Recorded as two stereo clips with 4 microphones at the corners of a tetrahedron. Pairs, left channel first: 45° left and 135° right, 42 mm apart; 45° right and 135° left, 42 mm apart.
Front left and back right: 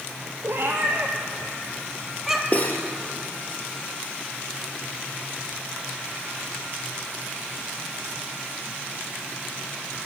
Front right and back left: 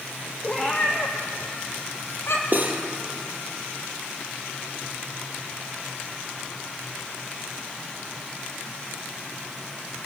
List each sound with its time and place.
0.4 s a cat meowing: 110° right, 3 m; by 2.4 s 50° right, 2 m
2.5 s cutlery clinking: 95° left, 2.5 m